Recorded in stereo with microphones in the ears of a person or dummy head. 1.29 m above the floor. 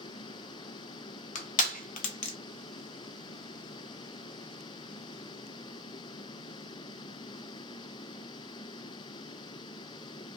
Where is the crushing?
45° left (ahead or behind), 0.6 m.